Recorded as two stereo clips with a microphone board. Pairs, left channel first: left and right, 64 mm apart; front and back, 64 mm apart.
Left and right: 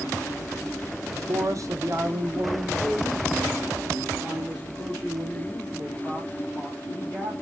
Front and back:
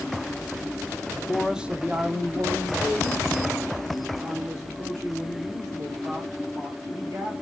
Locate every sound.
1.1 s a man speaking: 70° right, 0.6 m; by 7.3 s 165° right, 3.5 m